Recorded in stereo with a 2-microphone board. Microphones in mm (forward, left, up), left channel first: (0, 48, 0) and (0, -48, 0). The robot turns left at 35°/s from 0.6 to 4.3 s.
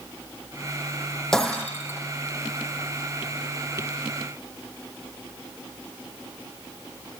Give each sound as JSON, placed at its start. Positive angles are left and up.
{"t": 1.3, "sound": "breaking glass", "side_deg": 5, "distance_m": 6.0}